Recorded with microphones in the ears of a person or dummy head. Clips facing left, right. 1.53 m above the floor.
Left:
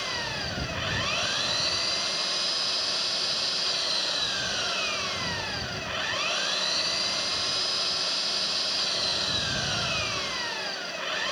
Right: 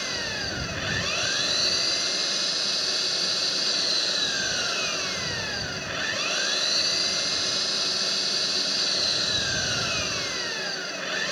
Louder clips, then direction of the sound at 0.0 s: Right 1 dB; 25° right (ahead or behind).